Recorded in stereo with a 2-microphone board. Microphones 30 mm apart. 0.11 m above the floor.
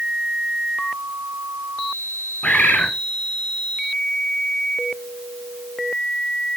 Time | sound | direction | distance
2.4 | a bird | 55° left (ahead or behind) | 2.5 m